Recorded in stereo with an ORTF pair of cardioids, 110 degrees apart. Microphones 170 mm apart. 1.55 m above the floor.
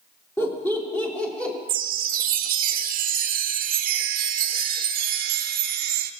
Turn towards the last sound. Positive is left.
turn(degrees=-60)